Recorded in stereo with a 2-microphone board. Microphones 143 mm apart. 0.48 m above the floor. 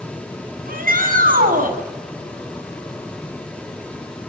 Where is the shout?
75° right (ahead or behind), 6 m; by 1.8 s 70° right (ahead or behind), 5 m.